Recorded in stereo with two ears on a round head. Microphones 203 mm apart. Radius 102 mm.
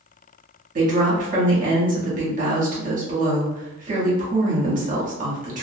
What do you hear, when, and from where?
0.8 s a woman speaking: 35° right (ahead or behind), 0.9 m